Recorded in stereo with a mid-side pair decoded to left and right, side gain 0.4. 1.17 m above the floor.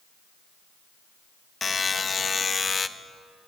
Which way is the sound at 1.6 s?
35° left.